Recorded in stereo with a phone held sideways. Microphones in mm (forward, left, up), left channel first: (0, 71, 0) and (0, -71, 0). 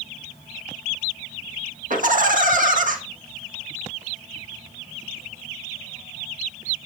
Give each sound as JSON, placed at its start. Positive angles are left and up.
{"t": 1.9, "sound": "laughter", "side_deg": -70, "distance_m": 1.7}